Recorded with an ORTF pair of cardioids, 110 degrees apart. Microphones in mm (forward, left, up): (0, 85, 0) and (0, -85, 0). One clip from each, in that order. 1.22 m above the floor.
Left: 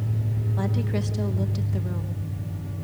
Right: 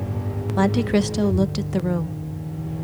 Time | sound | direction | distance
0.6 | a woman speaking | 50° right | 0.9 m